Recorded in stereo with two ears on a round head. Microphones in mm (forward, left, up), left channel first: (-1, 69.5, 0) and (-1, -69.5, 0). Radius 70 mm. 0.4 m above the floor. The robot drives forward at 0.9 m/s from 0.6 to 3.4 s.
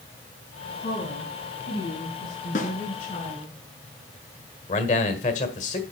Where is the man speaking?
50° left (ahead or behind), 1.5 m.